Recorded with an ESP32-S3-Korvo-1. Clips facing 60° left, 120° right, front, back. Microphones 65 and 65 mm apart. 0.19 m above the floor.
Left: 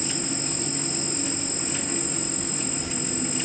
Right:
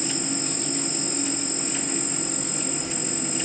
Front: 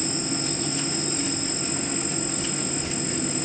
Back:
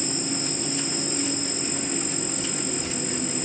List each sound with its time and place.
0.0 s an insect: 100° left, 3.5 m